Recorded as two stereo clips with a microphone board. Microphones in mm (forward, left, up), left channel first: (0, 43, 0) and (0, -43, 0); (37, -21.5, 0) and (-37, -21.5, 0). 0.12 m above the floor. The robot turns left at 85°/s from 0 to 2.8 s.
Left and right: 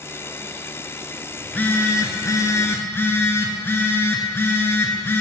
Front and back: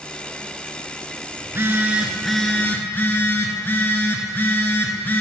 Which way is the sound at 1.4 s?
165° left.